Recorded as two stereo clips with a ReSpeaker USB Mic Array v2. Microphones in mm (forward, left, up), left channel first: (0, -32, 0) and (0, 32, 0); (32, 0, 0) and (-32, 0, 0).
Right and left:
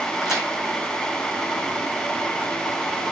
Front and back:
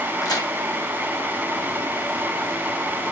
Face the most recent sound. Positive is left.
turn(degrees=10)